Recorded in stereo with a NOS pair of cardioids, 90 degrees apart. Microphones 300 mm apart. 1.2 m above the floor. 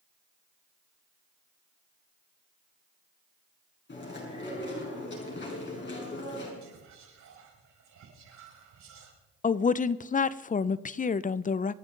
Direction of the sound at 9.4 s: 25° left.